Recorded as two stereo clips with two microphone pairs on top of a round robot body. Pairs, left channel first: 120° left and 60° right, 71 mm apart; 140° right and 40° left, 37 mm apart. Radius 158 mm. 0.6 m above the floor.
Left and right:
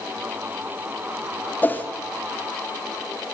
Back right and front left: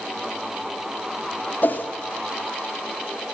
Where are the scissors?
No scissors in this recording.